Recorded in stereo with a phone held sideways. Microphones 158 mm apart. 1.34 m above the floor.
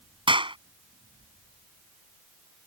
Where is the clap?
30° right (ahead or behind).